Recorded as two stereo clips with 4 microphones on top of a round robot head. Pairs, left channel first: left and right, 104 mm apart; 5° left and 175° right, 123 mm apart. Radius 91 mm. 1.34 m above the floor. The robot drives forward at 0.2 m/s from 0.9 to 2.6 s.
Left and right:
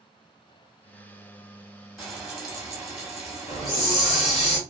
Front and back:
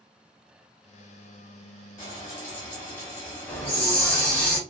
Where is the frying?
10° right, 0.9 m; by 4.5 s 15° right, 0.8 m.